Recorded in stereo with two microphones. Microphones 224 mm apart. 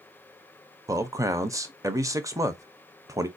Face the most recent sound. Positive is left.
turn(degrees=-15)  # may be behind; listen again after turning